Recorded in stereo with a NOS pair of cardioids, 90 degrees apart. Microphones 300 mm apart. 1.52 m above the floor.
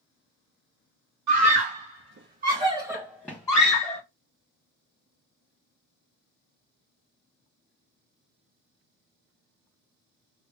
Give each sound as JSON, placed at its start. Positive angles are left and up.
{"t": 1.3, "sound": "a scream", "azimuth_deg": -70, "distance_m": 1.4}